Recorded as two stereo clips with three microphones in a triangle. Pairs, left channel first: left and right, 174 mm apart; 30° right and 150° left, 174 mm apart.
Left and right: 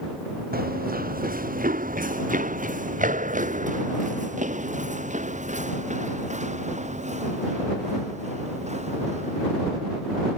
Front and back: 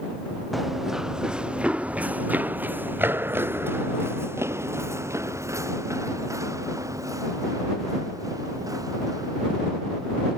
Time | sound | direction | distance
0.5 | running footsteps | 120° right | ?